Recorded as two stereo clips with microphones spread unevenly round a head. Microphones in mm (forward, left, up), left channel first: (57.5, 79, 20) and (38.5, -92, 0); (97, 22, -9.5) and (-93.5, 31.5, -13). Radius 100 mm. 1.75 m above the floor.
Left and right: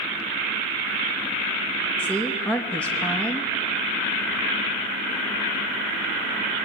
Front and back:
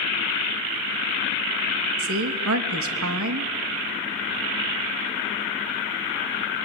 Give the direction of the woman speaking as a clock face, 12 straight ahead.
6 o'clock.